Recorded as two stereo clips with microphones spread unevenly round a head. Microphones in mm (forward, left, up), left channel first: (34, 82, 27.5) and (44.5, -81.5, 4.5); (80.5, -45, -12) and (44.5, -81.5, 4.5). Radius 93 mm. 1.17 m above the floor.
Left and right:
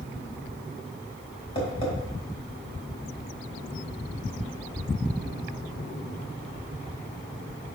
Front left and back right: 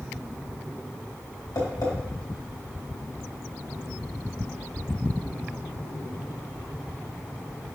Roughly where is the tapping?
Ahead left.